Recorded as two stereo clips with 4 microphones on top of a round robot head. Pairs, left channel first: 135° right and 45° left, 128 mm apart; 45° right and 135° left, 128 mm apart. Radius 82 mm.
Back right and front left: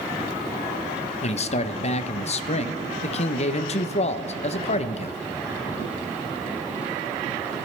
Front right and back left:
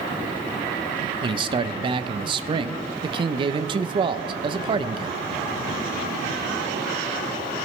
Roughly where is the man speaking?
Behind.